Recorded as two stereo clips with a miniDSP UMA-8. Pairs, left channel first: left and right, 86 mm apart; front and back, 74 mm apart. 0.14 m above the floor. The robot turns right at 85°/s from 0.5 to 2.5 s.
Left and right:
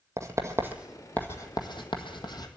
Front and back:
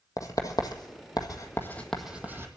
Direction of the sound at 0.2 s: 40° right.